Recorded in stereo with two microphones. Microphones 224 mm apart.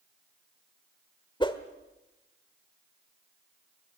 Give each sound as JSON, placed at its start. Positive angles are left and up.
{"t": 1.4, "sound": "a whoosh", "side_deg": 20, "distance_m": 1.3}